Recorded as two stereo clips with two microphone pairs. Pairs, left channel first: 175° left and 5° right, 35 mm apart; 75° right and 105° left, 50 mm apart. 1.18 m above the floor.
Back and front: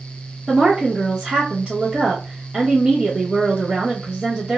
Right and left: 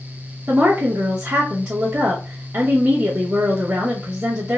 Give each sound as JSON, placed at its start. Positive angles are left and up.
{"t": 0.5, "sound": "a woman speaking", "azimuth_deg": 70, "distance_m": 1.1}